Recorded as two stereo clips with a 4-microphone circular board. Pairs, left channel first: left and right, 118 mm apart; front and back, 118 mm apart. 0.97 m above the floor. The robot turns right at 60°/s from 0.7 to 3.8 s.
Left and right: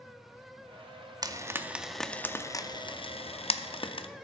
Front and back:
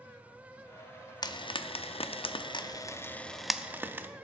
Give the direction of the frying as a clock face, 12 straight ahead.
1 o'clock.